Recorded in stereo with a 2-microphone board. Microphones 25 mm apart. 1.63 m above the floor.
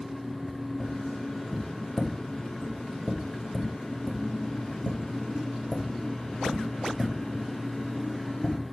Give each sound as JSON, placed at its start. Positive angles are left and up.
{"t": 0.8, "sound": "tapping", "side_deg": 45, "distance_m": 2.0}